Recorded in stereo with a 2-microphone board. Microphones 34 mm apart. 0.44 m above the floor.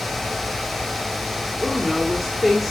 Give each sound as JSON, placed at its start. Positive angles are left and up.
{"t": 1.6, "sound": "a woman speaking", "side_deg": 0, "distance_m": 1.5}